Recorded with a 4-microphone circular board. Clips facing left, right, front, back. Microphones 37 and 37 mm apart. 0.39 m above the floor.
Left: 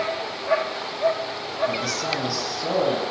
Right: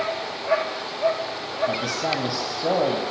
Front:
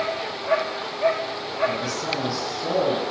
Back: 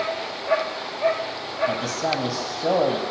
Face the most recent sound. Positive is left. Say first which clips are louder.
# right 1 dB, back 2 dB
turn(degrees=-145)